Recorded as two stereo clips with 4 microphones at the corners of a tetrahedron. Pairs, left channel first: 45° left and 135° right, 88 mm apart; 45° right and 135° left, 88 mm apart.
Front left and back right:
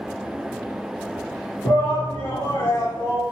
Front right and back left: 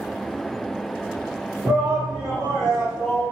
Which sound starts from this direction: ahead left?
A shout, at 1.6 s.